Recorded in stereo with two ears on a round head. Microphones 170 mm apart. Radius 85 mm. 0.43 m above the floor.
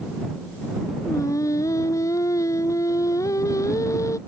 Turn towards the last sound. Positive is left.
turn(degrees=15)  # may be behind; listen again after turning